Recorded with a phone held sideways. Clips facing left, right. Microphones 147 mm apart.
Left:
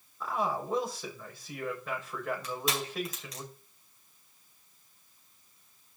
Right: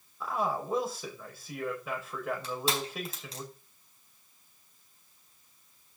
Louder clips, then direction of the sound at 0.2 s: Even; 5° right (ahead or behind).